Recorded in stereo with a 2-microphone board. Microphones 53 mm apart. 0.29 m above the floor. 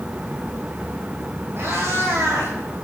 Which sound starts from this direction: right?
A cat meowing, at 1.6 s.